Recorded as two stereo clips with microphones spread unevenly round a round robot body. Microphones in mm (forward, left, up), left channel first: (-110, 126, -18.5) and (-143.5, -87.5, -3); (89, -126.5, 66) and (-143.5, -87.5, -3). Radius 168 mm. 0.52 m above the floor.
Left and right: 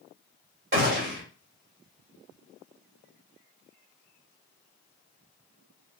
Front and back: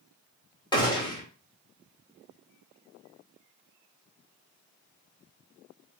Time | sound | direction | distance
0.7 | a gunshot | 90° right | 2 m